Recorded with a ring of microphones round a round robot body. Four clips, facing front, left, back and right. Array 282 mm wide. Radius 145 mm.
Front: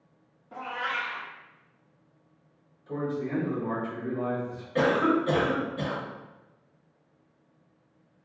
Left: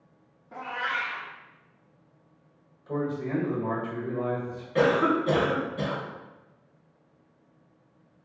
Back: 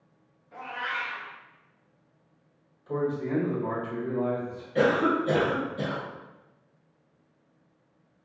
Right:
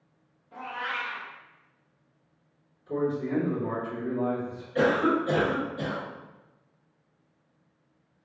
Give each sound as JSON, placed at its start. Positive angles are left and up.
{"t": 0.5, "sound": "a cat meowing", "azimuth_deg": 40, "distance_m": 0.5}
{"t": 2.9, "sound": "a man speaking", "azimuth_deg": 110, "distance_m": 1.4}
{"t": 4.8, "sound": "a cough", "azimuth_deg": 65, "distance_m": 1.2}